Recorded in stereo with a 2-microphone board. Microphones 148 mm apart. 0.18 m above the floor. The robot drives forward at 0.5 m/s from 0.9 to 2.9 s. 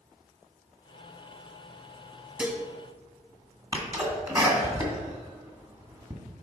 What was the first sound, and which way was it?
Dishes clattering, 10° right (ahead or behind).